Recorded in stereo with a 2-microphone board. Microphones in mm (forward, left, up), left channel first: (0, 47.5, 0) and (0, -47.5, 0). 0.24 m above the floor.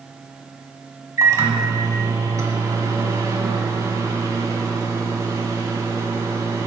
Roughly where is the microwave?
Right.